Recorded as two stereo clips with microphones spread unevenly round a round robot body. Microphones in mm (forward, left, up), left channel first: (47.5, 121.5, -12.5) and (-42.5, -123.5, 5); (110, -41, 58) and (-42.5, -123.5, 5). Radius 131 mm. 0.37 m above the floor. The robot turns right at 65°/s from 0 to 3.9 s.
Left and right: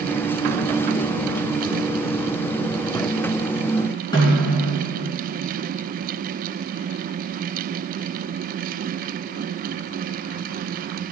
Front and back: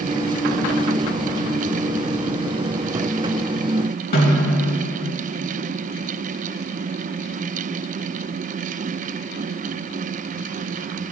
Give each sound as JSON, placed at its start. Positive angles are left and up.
{"t": 4.1, "sound": "a snare drum", "azimuth_deg": -5, "distance_m": 4.5}